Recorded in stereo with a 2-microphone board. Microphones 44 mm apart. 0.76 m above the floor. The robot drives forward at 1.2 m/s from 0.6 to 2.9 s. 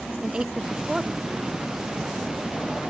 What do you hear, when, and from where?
0.2 s a woman speaking: 20° right (ahead or behind), 0.9 m; by 1.5 s 10° right (ahead or behind), 1.7 m